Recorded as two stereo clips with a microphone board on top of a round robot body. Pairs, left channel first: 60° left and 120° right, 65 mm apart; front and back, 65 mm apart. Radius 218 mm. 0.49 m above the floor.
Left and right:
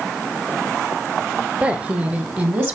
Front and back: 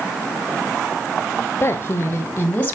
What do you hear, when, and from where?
1.6 s a woman speaking: 50° right, 3 m; by 2.8 s 65° right, 3 m